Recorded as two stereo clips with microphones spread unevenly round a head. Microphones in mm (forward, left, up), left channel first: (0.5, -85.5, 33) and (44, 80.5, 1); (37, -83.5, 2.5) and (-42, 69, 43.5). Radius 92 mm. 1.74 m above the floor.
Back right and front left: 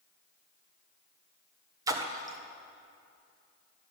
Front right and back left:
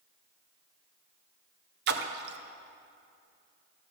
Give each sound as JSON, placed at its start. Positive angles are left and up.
{"t": 1.9, "sound": "a splash", "azimuth_deg": 150, "distance_m": 0.6}